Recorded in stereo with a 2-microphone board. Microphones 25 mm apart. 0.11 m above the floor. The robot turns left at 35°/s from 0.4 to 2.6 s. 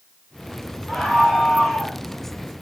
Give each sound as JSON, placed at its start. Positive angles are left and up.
{"t": 0.9, "sound": "a scream", "azimuth_deg": 175, "distance_m": 7.0}